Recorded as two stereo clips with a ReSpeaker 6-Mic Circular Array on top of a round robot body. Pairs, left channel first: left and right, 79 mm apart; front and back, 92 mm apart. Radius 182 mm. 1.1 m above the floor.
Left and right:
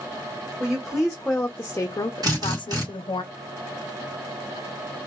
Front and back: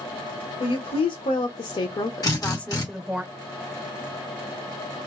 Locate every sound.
0.6 s a woman speaking: 5° right, 1.1 m; by 3.2 s 105° left, 0.8 m
2.2 s a drill: 50° right, 2 m